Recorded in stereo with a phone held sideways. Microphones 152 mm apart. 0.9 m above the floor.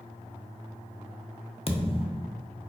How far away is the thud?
About 0.5 m.